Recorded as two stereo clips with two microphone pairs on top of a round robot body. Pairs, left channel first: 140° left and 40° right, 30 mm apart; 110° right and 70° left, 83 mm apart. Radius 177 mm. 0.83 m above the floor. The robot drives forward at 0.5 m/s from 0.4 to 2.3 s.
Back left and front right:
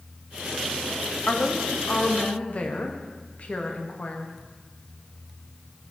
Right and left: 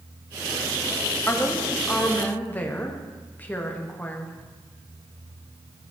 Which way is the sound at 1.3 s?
175° right.